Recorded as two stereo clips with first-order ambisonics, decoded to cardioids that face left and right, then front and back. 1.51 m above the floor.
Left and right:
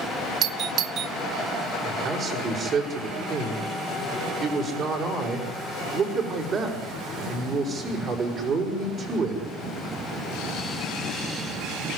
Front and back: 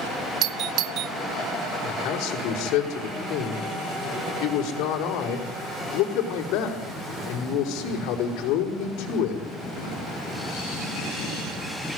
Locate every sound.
0.4 s a doorbell: 140° right, 0.5 m
1.8 s a man speaking: 30° right, 5.5 m